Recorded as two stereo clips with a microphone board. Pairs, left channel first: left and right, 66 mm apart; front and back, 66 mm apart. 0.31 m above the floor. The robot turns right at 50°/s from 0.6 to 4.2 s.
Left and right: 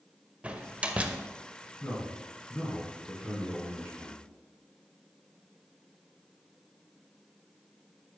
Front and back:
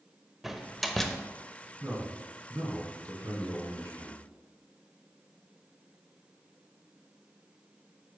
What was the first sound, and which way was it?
A door slam, 100° right.